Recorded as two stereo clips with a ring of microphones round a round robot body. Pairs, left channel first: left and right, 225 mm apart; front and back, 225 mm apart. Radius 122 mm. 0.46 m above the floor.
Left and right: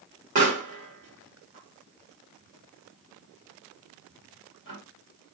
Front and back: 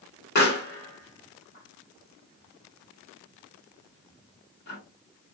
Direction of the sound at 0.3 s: 40° right.